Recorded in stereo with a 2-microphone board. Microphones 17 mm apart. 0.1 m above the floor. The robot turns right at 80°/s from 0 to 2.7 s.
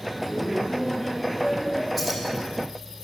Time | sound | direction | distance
0.2 | laughter | 15° left (ahead or behind) | 1.4 m
2.0 | keys jangling | 5° right (ahead or behind) | 3.5 m